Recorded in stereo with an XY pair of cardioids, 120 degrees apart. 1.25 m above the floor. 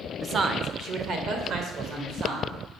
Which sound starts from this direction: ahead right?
A woman speaking, at 0.2 s.